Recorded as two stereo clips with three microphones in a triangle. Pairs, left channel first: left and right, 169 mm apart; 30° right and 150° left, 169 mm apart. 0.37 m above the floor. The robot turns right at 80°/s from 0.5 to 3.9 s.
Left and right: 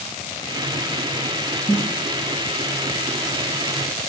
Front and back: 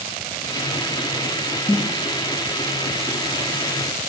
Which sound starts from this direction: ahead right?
A snare drum, at 1.7 s.